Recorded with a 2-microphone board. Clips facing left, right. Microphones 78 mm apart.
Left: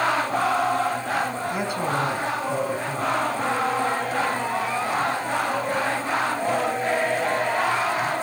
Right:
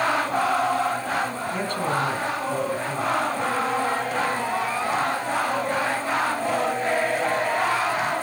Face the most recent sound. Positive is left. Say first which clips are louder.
# right 1 dB
turn(degrees=10)  # may be behind; listen again after turning